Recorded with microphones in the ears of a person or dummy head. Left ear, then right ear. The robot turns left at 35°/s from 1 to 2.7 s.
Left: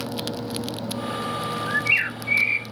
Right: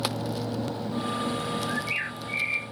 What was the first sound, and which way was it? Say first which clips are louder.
A bird: left 8 dB; 45° left (ahead or behind).